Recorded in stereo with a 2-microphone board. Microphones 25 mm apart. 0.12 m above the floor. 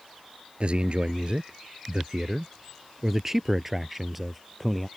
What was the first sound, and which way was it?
A man speaking, 50° right (ahead or behind).